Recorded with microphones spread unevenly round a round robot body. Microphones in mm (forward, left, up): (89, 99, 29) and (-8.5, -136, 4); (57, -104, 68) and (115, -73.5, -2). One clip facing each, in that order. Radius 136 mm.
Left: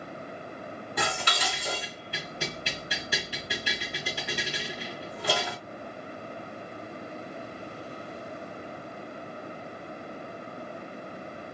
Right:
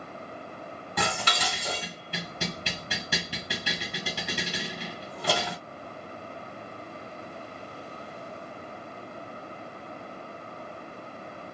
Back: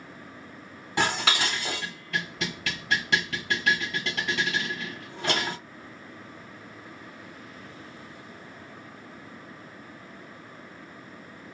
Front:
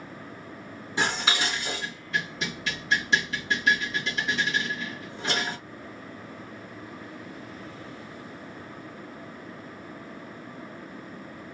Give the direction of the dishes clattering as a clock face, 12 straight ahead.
5 o'clock.